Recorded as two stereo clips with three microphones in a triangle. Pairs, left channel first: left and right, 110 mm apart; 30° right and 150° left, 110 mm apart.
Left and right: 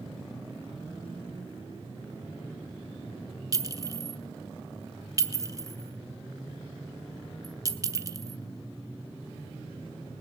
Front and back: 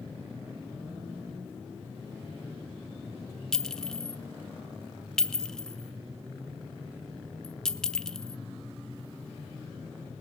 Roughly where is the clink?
Right.